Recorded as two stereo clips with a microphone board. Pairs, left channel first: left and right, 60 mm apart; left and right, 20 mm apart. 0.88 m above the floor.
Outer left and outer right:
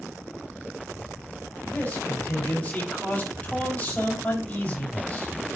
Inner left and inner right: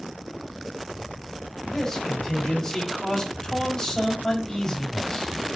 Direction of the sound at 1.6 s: 30° left (ahead or behind).